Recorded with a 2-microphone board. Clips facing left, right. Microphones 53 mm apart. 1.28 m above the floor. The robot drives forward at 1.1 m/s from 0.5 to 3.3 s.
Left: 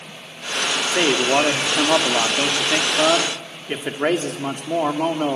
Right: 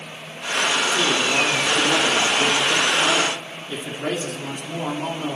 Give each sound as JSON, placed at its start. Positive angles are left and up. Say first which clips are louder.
{"t": 0.9, "sound": "a man speaking", "louder": "left 2 dB", "side_deg": 60, "distance_m": 2.5}